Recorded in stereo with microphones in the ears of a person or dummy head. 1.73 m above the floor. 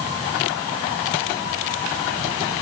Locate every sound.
Only background noise.